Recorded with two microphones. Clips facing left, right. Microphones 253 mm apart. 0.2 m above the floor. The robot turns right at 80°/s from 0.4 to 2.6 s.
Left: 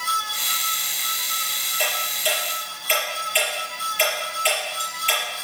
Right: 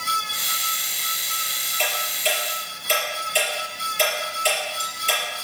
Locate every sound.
1.8 s ticking: 10° left (ahead or behind), 5 m; by 5.4 s 50° right (ahead or behind), 5 m